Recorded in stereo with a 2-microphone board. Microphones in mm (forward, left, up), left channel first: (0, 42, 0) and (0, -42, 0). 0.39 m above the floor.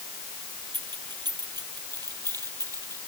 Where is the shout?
I don't hear a shout.